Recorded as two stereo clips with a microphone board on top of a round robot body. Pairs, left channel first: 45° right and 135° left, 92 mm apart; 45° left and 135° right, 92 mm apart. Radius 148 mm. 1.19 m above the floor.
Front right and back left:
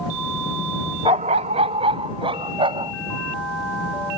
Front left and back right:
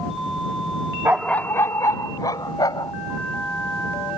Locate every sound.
1.1 s a dog barking: 165° left; by 2.9 s 95° left